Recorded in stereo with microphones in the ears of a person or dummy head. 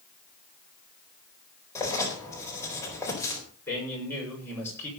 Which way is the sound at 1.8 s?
15° left (ahead or behind).